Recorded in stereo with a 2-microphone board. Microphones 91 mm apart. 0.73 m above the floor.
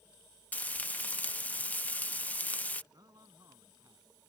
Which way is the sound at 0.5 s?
20° left (ahead or behind).